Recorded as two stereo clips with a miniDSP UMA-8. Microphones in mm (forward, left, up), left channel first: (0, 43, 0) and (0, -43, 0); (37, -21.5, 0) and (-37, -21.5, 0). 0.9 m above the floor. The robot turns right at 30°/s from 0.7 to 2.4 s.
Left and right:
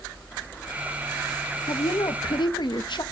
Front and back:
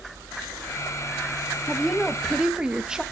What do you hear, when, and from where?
1.7 s a woman speaking: 80° left, 1.0 m; by 3.0 s 100° left, 1.0 m